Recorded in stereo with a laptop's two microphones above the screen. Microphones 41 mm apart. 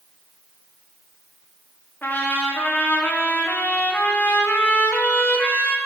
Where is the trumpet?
55° left (ahead or behind), 1.2 m.